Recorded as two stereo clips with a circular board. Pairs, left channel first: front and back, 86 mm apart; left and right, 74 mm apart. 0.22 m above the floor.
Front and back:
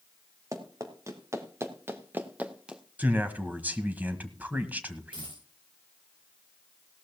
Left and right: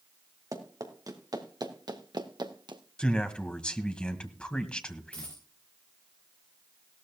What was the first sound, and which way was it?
Running footsteps, 130° right.